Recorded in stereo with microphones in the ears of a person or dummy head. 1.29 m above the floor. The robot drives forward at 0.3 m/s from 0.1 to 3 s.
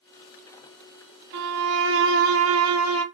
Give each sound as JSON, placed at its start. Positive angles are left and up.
{"t": 1.3, "sound": "a violin", "side_deg": -60, "distance_m": 1.1}